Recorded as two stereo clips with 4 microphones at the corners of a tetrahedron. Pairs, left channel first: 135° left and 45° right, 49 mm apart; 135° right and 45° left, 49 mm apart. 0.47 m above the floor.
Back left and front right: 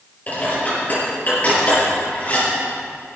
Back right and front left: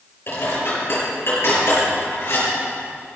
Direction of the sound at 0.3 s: 170° right.